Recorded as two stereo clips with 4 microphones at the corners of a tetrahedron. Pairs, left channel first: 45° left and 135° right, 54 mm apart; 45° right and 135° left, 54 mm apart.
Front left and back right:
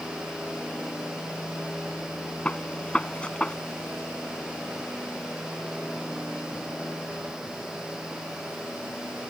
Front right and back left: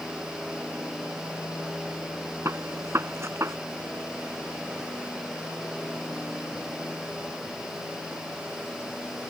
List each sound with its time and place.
2.5 s a gunshot: 110° left